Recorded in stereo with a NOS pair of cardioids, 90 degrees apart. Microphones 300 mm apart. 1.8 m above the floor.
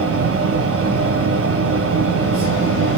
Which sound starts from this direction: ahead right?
A fan, at 0.0 s.